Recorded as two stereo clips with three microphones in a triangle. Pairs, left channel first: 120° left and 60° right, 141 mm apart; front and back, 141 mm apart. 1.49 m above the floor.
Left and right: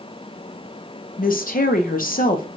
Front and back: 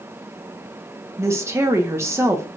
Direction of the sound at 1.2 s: 110° left.